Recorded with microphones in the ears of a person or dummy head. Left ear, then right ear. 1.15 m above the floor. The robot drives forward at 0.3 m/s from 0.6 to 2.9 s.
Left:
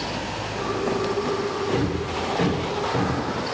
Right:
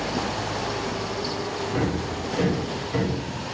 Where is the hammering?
5° left (ahead or behind), 1.3 m.